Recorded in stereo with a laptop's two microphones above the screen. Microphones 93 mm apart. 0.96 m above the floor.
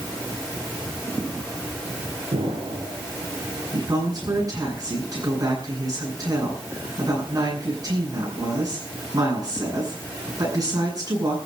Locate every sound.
2.3 s an explosion: 75° right (ahead or behind), 6.5 m
3.7 s a woman speaking: 40° right (ahead or behind), 8.5 m